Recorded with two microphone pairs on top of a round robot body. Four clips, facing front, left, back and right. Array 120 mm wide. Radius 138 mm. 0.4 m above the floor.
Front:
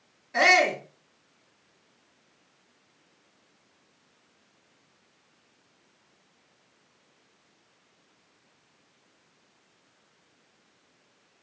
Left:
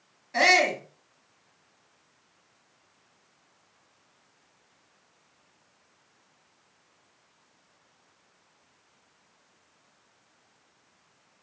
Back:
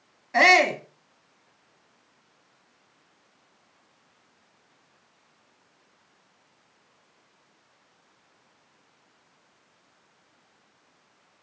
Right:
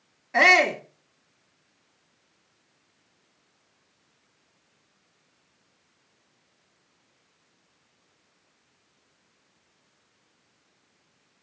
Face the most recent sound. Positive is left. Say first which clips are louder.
# right 3 dB, back 3 dB
turn(degrees=-150)